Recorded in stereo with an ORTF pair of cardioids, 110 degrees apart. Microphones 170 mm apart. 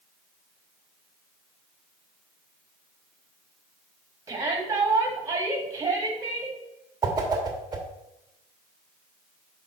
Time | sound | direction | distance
4.3 | a shout | 20° right | 2.5 m
7.0 | a whoosh | 25° right | 1.5 m